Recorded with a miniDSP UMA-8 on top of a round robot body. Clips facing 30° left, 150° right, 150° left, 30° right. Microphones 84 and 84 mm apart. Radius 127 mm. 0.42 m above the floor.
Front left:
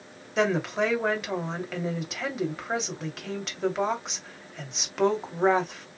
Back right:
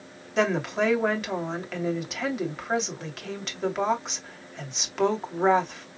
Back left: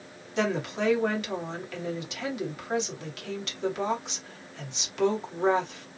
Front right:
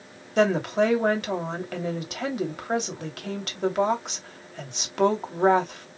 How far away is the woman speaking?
About 2.5 m.